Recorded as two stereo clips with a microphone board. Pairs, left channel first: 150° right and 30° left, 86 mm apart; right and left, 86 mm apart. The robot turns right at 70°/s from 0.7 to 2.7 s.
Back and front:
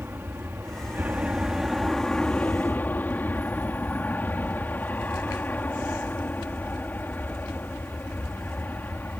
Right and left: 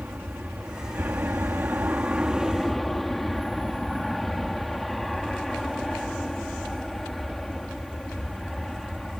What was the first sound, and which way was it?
An aircraft, 45° left.